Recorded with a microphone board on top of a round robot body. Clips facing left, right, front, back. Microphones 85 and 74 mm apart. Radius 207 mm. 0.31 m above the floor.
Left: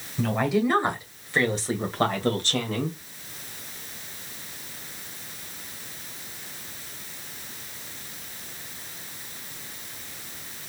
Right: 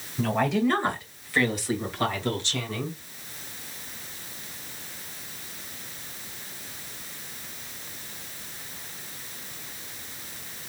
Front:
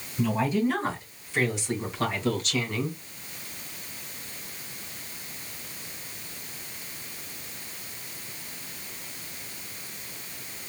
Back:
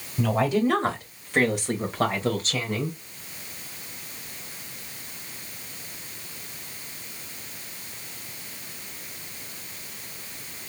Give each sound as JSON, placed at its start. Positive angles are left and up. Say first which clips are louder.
{"t": 0.2, "sound": "a woman speaking", "louder": "even, back 3 dB", "azimuth_deg": 180, "distance_m": 2.5}